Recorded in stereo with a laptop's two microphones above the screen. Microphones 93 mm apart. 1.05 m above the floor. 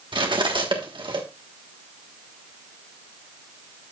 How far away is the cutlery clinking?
About 1.3 m.